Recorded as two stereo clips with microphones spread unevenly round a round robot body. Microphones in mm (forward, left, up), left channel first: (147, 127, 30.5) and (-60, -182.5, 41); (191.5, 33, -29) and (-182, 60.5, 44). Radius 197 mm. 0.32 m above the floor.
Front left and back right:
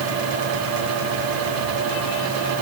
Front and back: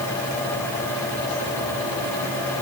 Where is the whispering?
No whispering in this recording.